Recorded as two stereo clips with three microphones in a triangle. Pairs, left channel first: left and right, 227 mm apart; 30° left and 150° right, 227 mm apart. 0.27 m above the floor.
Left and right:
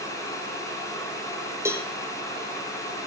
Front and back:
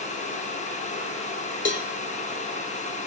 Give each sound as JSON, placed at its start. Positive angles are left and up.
{"t": 1.6, "sound": "a cowbell", "azimuth_deg": -10, "distance_m": 1.0}